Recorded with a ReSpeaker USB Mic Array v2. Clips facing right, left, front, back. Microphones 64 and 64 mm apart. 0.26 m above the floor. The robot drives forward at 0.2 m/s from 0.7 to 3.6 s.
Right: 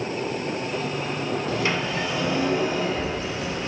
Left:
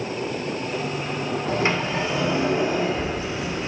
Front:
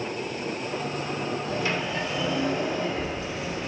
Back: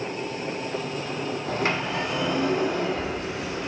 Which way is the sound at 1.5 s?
145° left.